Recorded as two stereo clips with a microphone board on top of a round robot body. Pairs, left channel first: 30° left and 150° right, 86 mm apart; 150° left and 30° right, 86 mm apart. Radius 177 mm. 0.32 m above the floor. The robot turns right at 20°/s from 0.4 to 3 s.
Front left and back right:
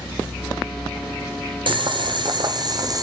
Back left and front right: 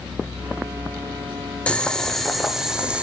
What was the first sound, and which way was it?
Boiling, 135° right.